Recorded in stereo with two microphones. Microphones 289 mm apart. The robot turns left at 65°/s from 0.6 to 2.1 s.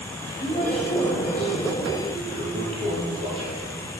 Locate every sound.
0.4 s a woman speaking: 35° left, 2.5 m; by 2.1 s 60° right, 2.5 m
2.1 s a toilet flushing: 20° right (ahead or behind), 3.5 m